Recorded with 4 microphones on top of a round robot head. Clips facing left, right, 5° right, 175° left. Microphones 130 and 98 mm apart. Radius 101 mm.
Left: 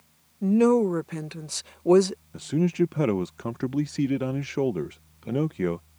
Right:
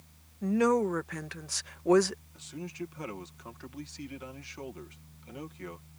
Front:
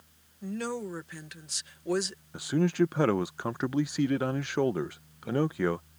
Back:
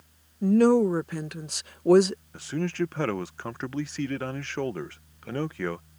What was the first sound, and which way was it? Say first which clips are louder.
A woman speaking: left 6 dB, back 15 dB; 150° left.